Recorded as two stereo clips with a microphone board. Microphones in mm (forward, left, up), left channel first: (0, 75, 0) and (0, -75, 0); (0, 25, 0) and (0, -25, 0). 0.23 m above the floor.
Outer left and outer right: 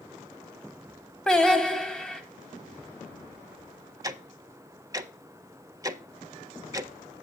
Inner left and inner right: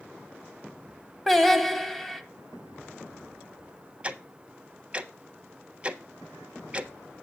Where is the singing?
5° left (ahead or behind), 0.9 m.